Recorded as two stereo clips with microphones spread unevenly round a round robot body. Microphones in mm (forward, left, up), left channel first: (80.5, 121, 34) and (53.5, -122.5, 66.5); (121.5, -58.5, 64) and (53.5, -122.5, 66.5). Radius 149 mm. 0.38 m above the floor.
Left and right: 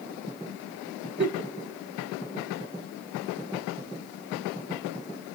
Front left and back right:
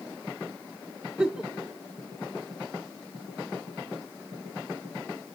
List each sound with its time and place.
1.2 s a giggle: 55° right, 1.0 m